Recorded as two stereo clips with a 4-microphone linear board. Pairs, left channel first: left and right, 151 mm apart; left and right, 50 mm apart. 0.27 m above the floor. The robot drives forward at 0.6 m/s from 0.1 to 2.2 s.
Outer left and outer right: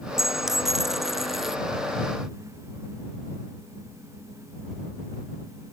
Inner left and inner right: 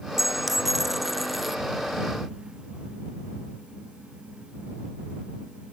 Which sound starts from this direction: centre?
A dropped coin, at 0.2 s.